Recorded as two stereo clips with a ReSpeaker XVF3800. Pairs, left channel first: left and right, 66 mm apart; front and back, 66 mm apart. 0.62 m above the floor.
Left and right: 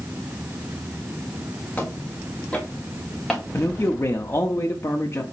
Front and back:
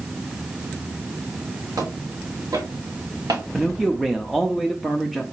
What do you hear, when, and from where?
1.8 s footsteps: 155° left, 3 m; by 3.4 s straight behind, 2.5 m
3.5 s a man speaking: 90° left, 0.7 m